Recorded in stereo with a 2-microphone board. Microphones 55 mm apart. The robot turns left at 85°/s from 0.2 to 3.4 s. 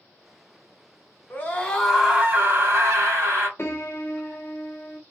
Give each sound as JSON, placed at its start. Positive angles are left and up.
{"t": 1.3, "sound": "a scream", "azimuth_deg": 50, "distance_m": 1.6}
{"t": 3.6, "sound": "a piano", "side_deg": 45, "distance_m": 0.6}